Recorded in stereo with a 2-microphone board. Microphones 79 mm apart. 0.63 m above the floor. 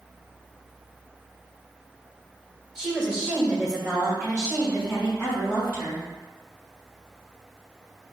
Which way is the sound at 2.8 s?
5° right (ahead or behind).